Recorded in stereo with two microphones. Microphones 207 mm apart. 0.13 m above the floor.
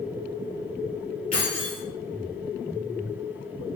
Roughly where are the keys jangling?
Left.